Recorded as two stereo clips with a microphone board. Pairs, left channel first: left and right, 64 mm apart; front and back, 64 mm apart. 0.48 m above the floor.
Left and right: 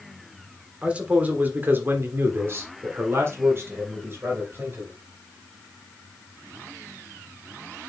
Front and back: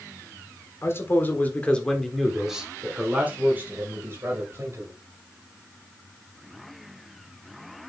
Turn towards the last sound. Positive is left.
turn(degrees=-140)